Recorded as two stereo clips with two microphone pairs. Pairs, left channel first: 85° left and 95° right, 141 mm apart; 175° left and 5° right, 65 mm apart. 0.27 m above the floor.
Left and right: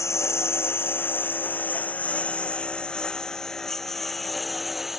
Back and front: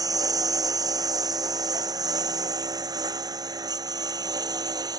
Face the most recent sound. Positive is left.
turn(degrees=-5)